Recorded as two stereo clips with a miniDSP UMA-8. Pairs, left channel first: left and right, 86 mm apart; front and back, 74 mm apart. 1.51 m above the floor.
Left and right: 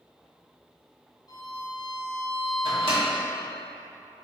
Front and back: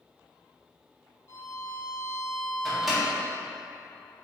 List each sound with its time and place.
1.3 s a violin: 50° left, 0.8 m
2.6 s a microwave: 95° right, 2.0 m